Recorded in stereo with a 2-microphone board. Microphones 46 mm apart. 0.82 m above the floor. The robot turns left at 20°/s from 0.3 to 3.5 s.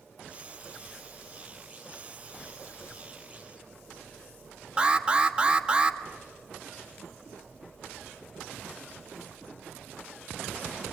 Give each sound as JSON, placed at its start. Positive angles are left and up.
{"t": 4.8, "sound": "an alarm", "side_deg": -20, "distance_m": 1.5}